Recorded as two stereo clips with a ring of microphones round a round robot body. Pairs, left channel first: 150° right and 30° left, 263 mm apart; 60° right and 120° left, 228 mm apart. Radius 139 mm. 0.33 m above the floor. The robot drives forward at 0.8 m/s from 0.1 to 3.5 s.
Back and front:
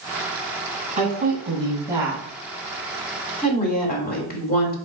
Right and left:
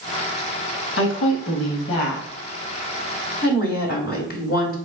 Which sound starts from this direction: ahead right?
A woman speaking, at 1.0 s.